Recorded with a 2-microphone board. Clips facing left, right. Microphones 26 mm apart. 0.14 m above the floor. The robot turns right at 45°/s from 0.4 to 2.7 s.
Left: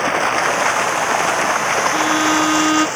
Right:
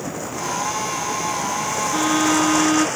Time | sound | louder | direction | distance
0.0 | running water | left 11 dB | 65° left | ?
1.9 | a violin | left 3 dB | 5° left | ?